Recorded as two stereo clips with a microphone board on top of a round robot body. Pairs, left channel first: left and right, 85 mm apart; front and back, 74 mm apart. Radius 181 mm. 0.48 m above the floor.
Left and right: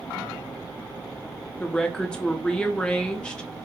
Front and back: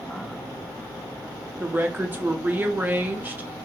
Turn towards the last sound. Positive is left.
turn(degrees=155)